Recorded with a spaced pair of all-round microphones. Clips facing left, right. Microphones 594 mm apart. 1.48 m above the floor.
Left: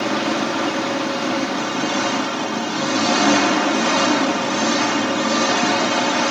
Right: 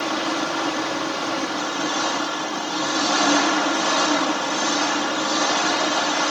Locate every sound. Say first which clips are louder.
0.0 s an engine running: left 4 dB; 75° left (ahead or behind)